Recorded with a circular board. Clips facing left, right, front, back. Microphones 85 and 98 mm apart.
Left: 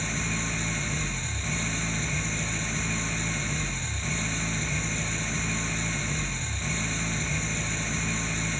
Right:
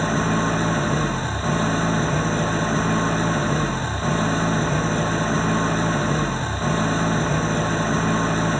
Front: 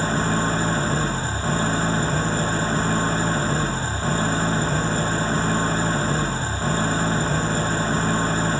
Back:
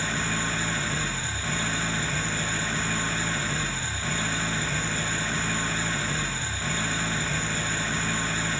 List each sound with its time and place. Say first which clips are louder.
0.0 s an engine running: right 12 dB, front 8 dB; 50° right